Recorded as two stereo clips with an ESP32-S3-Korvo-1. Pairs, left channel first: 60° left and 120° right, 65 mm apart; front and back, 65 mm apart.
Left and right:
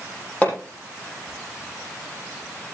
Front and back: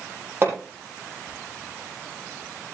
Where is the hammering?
130° left, 7.5 m.